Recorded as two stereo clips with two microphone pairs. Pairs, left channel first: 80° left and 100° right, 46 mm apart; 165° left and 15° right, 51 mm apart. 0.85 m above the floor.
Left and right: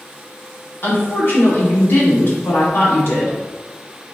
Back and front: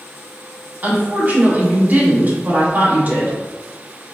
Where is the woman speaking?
40° left, 1.6 m.